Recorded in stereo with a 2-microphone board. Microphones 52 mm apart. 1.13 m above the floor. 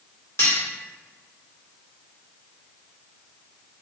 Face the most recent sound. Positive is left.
turn(degrees=60)  # may be behind; listen again after turning